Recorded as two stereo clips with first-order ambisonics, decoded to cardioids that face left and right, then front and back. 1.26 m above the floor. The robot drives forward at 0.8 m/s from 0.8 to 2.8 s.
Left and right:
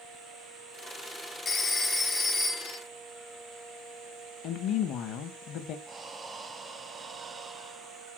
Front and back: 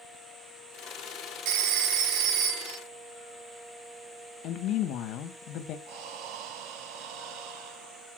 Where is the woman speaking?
45° left, 1.0 m.